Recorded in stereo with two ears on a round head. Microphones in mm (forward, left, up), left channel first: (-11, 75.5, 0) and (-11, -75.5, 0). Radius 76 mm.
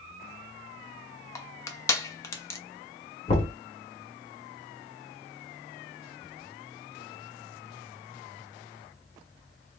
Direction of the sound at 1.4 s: 15° left (ahead or behind).